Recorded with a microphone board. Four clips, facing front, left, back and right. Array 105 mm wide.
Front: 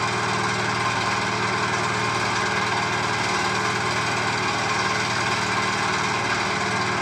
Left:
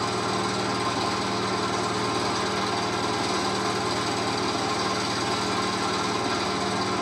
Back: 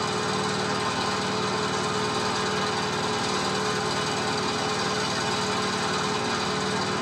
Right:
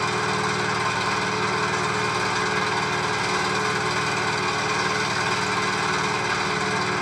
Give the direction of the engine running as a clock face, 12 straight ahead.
1 o'clock.